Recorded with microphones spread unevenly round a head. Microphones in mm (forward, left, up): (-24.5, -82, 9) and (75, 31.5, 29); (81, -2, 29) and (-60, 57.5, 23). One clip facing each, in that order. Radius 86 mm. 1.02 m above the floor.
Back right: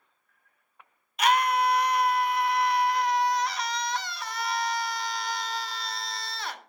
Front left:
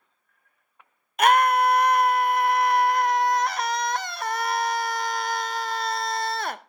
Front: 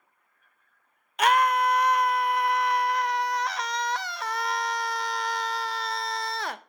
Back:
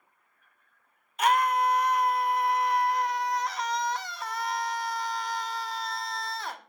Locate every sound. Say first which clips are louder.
1.2 s a scream: front left 5 dB, front 2 dB; 5° left, 0.7 m